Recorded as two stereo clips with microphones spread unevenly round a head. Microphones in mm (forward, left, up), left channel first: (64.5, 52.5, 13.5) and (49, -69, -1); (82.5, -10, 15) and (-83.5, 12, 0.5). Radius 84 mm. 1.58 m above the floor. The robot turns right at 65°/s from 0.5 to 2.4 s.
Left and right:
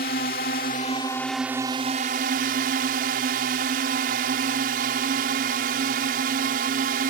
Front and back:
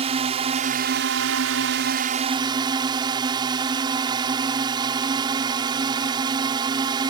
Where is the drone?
115° left; by 7.1 s 120° right.